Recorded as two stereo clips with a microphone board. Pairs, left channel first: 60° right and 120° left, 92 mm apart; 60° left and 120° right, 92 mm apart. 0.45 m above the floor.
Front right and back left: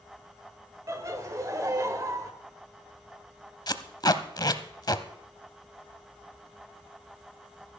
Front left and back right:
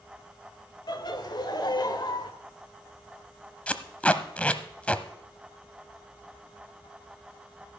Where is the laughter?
75° left, 1.7 m.